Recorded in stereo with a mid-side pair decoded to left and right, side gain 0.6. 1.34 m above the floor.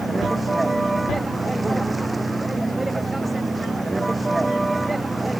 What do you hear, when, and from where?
0.0 s a vehicle: 10° right